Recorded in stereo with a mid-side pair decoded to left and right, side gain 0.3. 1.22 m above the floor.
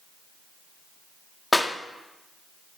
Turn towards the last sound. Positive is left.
turn(degrees=25)